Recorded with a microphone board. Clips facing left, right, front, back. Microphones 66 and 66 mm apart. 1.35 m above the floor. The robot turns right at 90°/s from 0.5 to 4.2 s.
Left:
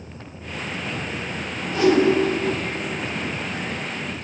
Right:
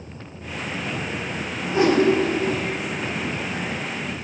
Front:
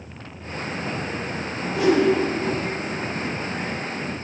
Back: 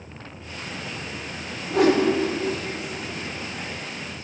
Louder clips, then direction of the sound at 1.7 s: Left 1 dB, even; 160° right.